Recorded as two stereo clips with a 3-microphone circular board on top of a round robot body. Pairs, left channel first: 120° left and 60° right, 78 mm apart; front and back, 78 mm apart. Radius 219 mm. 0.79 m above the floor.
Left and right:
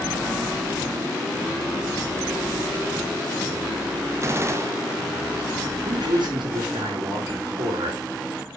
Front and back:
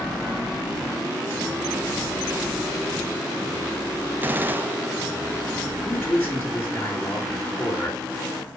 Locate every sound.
4.2 s a gunshot: 115° right, 1.0 m
5.8 s a man speaking: 65° right, 3.5 m